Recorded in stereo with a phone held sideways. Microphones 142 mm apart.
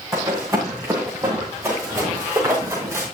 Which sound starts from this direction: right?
Running footsteps, at 0.1 s.